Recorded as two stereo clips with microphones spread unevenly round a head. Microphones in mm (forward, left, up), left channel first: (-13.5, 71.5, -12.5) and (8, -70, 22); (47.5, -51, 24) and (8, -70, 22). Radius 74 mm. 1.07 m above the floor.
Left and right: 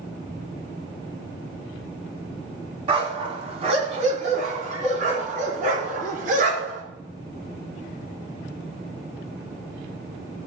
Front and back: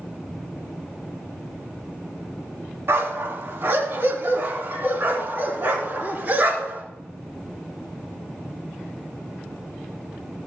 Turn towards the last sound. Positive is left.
turn(degrees=-110)